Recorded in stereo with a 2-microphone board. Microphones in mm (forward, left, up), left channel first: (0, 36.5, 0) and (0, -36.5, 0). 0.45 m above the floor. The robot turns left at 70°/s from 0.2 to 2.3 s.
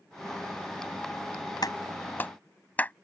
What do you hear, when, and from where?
1.6 s a clap: 65° left (ahead or behind); by 2.9 s 20° left (ahead or behind)